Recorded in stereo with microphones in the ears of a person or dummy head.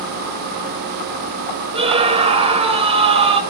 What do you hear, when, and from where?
1.7 s a scream: 25° right (ahead or behind), 1.3 m